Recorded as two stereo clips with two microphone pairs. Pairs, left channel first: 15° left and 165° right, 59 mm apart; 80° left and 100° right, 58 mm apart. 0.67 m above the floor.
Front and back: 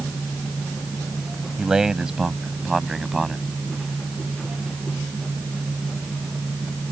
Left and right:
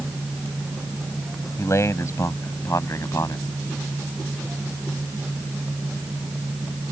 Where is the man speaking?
115° left; by 3.5 s 105° left.